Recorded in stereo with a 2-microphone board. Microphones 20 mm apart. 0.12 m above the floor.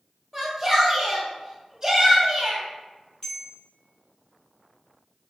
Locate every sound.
0.3 s a shout: 25° right (ahead or behind), 1.6 m; by 2.6 s 35° right (ahead or behind), 1.6 m
3.2 s a bell: 35° left (ahead or behind), 0.9 m